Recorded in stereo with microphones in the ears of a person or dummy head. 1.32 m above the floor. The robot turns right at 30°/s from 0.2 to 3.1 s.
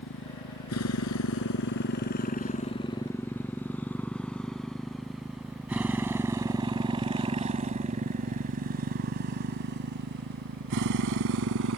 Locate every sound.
0.0 s a motorcycle: 65° left (ahead or behind); by 11.8 s 75° right (ahead or behind)